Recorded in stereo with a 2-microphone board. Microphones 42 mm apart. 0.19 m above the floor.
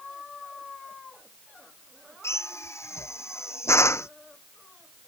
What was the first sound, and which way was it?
A drill, 85° left.